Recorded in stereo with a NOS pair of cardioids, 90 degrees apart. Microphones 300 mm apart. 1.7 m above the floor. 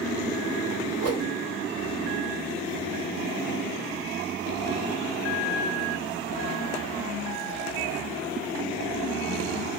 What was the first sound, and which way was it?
A whoosh, 55° right.